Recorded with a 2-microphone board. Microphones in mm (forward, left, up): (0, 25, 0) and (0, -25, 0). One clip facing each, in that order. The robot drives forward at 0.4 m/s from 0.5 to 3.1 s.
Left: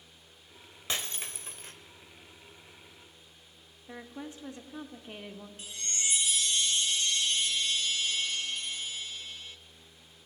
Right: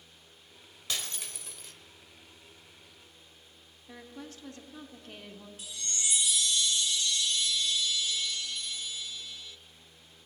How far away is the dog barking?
No dog barking in this recording.